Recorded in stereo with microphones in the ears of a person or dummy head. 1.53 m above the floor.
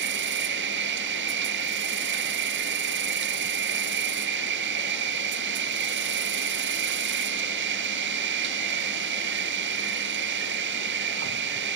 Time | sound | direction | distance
0.0 | an insect | 55° right (ahead or behind) | 0.7 m